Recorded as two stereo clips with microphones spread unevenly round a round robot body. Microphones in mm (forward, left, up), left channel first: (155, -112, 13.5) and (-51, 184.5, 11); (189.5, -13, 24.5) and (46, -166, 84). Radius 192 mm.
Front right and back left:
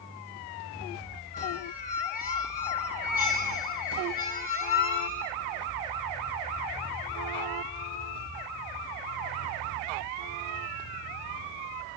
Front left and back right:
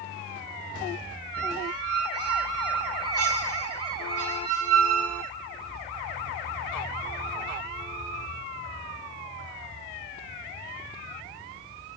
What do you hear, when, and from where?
1.3 s a squeak: 125° right, 1.7 m